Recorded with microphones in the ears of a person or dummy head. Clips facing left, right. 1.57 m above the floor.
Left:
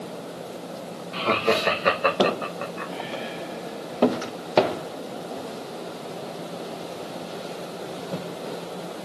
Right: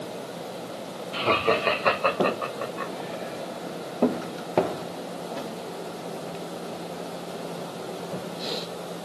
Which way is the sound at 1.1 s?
5° right (ahead or behind).